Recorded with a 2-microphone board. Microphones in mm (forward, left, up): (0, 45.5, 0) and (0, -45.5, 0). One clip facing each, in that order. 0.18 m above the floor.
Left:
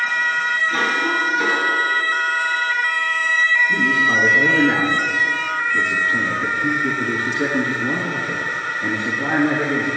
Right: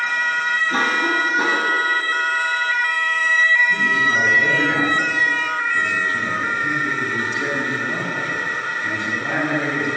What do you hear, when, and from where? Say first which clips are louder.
0.7 s a cough: right 2 dB; 35° right (ahead or behind), 1.5 m
3.7 s a man speaking: left 1 dB; 40° left (ahead or behind), 4 m